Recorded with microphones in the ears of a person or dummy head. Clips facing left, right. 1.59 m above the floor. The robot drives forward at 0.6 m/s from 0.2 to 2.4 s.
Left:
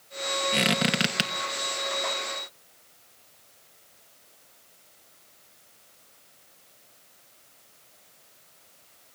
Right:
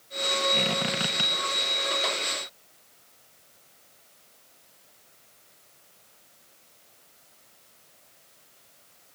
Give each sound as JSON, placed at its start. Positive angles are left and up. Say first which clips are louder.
{"t": 0.5, "sound": "a squeak", "louder": "left 3 dB", "side_deg": 15, "distance_m": 0.8}